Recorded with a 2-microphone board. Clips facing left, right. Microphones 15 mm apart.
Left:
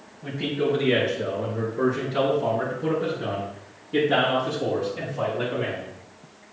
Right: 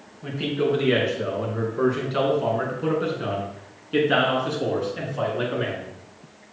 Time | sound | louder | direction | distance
0.2 | a man speaking | right 1 dB | 45° right (ahead or behind) | 4 m